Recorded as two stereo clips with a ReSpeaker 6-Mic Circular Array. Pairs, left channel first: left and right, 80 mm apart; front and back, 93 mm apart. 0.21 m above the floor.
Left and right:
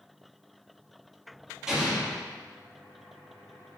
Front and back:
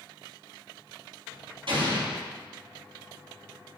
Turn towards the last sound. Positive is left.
turn(degrees=-175)